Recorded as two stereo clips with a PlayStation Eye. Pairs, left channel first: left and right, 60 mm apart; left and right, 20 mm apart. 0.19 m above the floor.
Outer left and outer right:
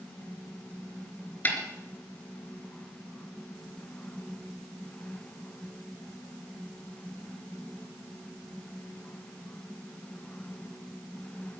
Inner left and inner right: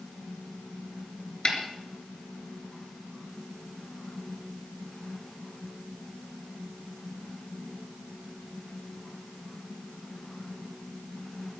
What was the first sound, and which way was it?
A snare drum, 30° left (ahead or behind).